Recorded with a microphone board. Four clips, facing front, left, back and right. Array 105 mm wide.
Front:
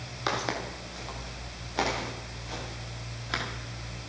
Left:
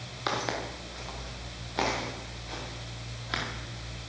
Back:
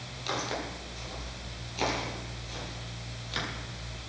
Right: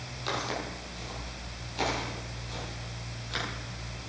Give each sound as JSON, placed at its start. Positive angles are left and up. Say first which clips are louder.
{"t": 0.3, "sound": "footsteps", "louder": "left 2 dB, front 3 dB", "azimuth_deg": 40, "distance_m": 5.0}